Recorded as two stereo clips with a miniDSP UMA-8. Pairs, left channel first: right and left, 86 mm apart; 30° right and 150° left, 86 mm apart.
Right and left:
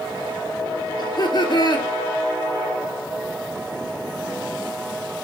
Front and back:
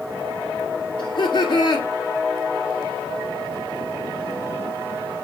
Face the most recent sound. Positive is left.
turn(degrees=-55)